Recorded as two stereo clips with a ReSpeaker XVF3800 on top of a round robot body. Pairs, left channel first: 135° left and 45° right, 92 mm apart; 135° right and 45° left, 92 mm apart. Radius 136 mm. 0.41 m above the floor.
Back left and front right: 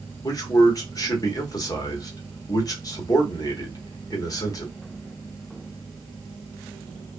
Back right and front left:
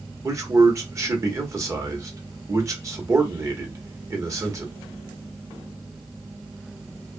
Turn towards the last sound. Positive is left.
turn(degrees=95)